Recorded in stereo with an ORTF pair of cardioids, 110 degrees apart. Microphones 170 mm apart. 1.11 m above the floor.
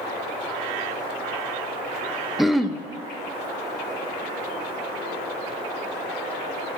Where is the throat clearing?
Straight ahead, 0.6 m.